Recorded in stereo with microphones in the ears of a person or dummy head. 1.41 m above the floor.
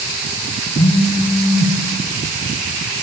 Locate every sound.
0.8 s a phone buzzing: 30° left (ahead or behind), 5 m